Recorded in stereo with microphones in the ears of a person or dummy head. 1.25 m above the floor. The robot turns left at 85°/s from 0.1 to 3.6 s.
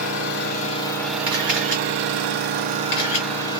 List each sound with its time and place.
0.0 s an engine running: 90° left, 0.9 m; by 3.6 s 155° left, 0.9 m
1.3 s a camera shutter: 30° right (ahead or behind), 1.3 m; by 3.3 s 35° left (ahead or behind), 1.3 m